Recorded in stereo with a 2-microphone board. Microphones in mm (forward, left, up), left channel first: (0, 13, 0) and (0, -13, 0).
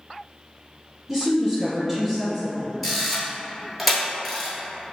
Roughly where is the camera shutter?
Centre.